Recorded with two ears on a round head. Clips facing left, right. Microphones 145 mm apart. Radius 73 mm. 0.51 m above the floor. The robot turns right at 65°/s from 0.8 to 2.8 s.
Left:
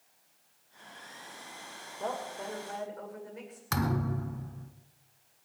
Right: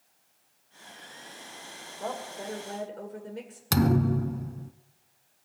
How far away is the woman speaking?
About 2 m.